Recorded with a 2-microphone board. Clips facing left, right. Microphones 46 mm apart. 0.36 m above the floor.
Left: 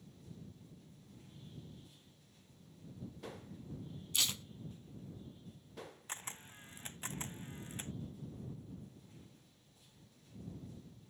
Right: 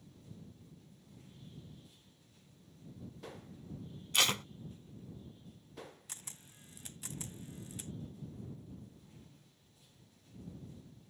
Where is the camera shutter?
35° left (ahead or behind).